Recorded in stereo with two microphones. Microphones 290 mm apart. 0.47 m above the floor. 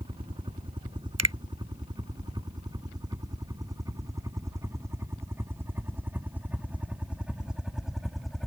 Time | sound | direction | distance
0.0 | a helicopter | 15° right (ahead or behind) | ?
1.2 | a finger snap | 55° right (ahead or behind) | ?